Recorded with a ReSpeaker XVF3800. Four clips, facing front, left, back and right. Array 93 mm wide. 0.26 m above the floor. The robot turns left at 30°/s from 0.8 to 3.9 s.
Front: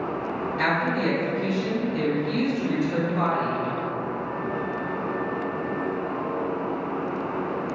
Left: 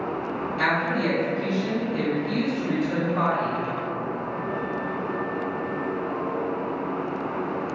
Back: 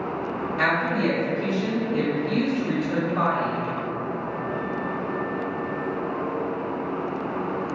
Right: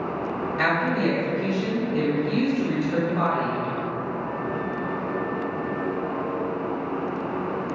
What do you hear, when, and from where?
0.6 s a woman speaking: 115° right, 1.2 m; by 3.6 s 160° left, 1.2 m